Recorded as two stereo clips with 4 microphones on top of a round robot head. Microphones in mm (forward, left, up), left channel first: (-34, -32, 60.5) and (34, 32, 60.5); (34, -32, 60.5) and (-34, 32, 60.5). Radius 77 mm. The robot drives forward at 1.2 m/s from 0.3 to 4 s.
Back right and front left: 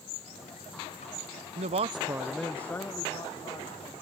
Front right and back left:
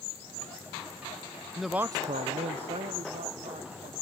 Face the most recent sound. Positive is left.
turn(degrees=170)